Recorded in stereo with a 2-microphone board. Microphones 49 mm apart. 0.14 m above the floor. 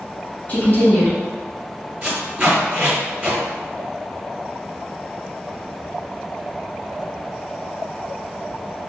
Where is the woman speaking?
35° left (ahead or behind), 1.8 m.